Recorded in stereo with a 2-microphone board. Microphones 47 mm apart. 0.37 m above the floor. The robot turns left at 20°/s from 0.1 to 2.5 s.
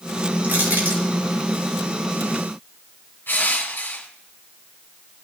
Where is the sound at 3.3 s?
45° left (ahead or behind), 2 m.